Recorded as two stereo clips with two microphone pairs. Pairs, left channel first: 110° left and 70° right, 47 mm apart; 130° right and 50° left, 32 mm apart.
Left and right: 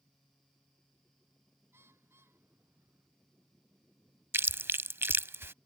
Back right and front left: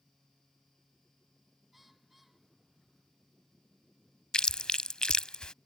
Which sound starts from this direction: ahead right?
A bird, at 1.7 s.